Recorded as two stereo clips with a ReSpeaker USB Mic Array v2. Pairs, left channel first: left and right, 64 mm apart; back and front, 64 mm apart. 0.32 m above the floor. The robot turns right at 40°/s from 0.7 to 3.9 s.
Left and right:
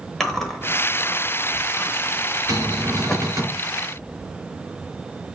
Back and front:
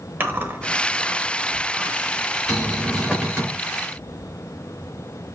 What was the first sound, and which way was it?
Chewing, 10° left.